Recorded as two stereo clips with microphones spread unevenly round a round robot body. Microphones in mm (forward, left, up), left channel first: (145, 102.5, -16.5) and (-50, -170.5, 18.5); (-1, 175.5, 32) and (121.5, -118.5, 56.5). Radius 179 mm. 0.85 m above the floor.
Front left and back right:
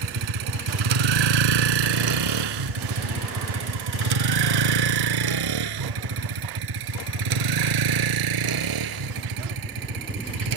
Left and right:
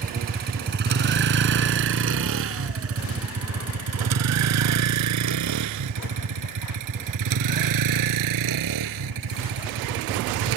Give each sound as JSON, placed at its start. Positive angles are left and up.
{"t": 0.0, "sound": "a vehicle", "azimuth_deg": -135}